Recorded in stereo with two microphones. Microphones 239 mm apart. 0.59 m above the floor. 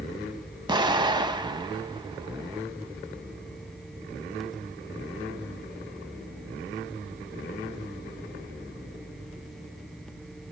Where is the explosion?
20° right (ahead or behind), 0.6 m.